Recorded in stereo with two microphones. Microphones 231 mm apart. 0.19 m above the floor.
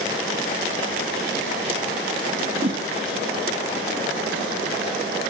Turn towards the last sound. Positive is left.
turn(degrees=-40)  # may be behind; listen again after turning